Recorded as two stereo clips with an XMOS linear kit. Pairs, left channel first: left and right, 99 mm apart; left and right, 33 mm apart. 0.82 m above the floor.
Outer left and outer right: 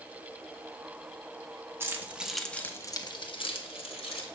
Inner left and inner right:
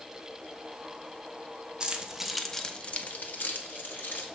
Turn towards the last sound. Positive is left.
turn(degrees=80)